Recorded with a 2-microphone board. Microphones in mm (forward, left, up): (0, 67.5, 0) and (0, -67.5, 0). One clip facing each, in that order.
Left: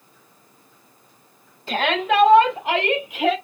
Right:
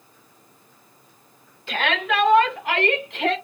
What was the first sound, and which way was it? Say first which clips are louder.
A shout: left 3 dB; 35° left (ahead or behind).